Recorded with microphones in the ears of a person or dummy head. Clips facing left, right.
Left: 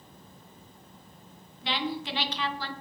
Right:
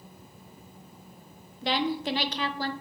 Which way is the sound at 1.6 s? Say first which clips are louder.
Right 4 dB; 35° right (ahead or behind).